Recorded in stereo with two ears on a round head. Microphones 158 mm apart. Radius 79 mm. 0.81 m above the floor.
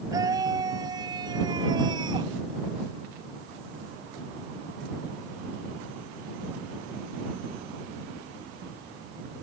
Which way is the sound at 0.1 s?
20° right (ahead or behind).